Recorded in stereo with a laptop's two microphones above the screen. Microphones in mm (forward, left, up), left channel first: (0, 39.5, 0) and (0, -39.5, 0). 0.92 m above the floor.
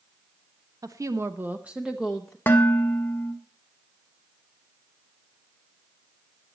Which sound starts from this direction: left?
Dishes clattering, at 2.5 s.